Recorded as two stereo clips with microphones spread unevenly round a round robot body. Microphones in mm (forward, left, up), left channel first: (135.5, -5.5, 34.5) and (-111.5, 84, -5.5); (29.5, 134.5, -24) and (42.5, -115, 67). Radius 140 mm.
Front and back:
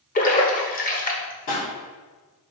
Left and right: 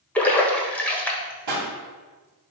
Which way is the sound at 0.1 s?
35° left.